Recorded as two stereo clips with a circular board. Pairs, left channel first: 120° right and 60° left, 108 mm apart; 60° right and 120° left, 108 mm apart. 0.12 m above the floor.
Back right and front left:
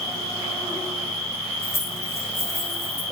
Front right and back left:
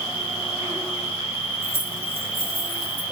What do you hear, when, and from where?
0.0 s an insect: 70° right, 2 m
1.6 s keys jangling: 60° right, 2 m